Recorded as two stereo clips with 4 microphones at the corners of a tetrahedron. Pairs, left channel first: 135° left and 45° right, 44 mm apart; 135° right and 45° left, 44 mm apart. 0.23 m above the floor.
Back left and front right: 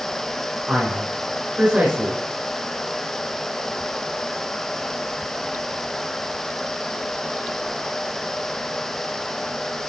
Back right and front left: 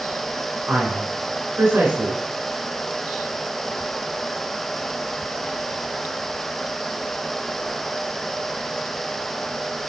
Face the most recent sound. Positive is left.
turn(degrees=10)